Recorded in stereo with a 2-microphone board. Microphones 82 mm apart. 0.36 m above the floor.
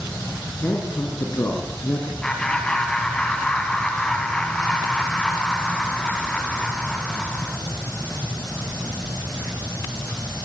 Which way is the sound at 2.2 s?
10° left (ahead or behind).